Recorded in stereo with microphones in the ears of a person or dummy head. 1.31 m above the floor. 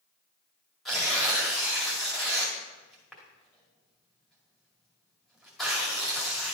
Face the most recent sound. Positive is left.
turn(degrees=5)  # may be behind; listen again after turning